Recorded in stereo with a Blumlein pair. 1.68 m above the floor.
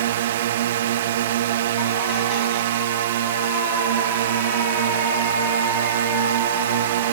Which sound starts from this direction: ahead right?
A drone, at 0.0 s.